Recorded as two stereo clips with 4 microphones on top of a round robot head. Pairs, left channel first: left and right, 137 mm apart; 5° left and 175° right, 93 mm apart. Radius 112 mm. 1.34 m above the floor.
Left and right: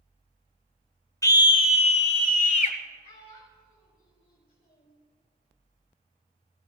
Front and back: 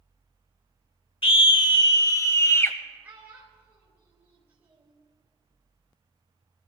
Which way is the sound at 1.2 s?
25° left.